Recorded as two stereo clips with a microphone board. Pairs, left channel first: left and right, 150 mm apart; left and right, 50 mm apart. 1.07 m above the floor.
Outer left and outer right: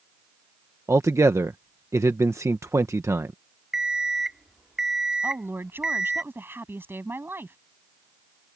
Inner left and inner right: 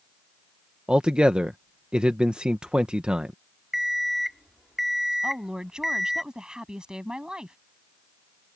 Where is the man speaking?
20° right (ahead or behind).